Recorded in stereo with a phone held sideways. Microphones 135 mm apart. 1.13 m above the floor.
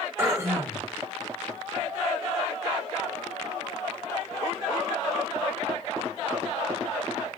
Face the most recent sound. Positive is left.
turn(degrees=-20)  # may be behind; listen again after turning